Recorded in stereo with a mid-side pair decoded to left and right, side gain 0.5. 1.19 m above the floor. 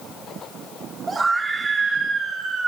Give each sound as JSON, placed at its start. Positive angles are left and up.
{"t": 1.1, "sound": "a scream", "azimuth_deg": -25, "distance_m": 4.0}